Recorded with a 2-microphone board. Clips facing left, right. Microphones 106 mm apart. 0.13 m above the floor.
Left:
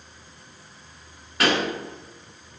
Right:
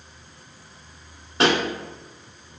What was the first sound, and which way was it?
A pop, 25° right (ahead or behind).